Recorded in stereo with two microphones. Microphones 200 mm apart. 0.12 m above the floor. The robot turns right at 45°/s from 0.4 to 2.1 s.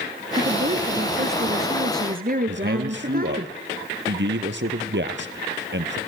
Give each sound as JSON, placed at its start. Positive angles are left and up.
{"t": 0.3, "sound": "a woman speaking", "azimuth_deg": -140, "distance_m": 2.0}
{"t": 2.5, "sound": "a man speaking", "side_deg": -60, "distance_m": 2.0}